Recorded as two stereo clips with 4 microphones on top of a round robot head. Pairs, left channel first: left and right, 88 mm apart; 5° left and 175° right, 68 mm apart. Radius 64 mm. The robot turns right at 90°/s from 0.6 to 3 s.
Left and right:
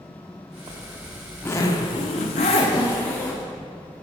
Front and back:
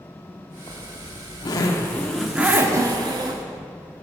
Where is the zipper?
45° right, 1.0 m; by 3.4 s 165° left, 1.0 m.